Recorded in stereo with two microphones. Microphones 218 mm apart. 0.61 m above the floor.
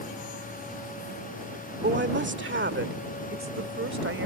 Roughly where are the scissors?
No scissors in this recording.